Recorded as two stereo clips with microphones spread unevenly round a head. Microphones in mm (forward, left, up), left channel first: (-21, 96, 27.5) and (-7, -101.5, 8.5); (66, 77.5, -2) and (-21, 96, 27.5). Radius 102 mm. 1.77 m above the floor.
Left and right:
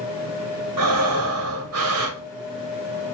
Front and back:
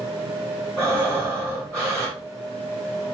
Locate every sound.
0.8 s breathing: 100° right, 1.2 m